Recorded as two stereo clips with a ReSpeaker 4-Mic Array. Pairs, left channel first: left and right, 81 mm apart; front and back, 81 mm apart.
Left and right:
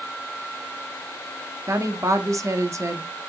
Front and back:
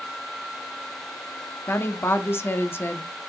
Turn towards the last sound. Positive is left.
turn(degrees=-55)